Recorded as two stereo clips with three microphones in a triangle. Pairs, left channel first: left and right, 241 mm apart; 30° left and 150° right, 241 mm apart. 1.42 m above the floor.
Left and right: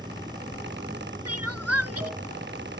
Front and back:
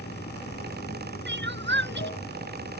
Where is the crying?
105° right.